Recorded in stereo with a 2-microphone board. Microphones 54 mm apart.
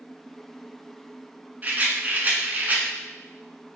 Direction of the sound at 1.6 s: 35° right (ahead or behind).